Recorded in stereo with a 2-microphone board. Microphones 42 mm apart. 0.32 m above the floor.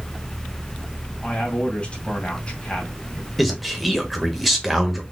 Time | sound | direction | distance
1.2 | a man speaking | 30° left (ahead or behind) | 1.9 m
3.4 | a man speaking | centre (ahead or behind) | 0.9 m